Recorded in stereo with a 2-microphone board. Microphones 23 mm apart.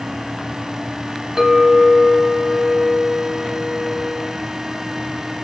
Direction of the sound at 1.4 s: 10° right (ahead or behind).